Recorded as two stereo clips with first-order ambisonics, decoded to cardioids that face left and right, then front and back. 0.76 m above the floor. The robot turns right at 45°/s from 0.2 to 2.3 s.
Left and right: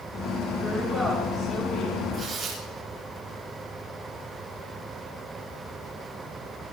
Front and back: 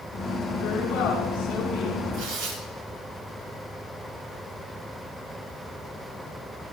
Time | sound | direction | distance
0.6 | a woman speaking | 15° right | 7.5 m
2.1 | tearing paper | 170° right | 6 m